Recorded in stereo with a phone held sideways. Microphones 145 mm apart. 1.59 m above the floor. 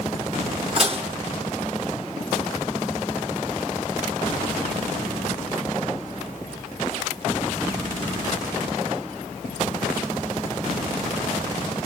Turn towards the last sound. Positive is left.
turn(degrees=-45)  # may be behind; listen again after turning